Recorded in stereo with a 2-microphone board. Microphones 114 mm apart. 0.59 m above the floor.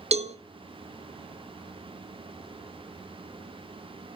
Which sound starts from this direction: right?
A cowbell, at 0.1 s.